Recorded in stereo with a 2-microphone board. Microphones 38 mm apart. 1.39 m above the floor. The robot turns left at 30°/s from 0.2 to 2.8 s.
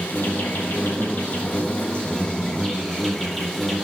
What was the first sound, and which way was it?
An insect, 95° left.